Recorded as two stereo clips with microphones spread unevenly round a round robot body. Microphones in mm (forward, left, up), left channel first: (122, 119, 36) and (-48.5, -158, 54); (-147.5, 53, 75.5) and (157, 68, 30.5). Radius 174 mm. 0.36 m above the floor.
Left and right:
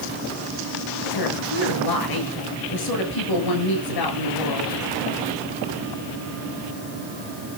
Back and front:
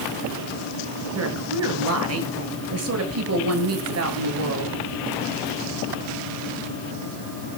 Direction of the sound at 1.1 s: 45° left.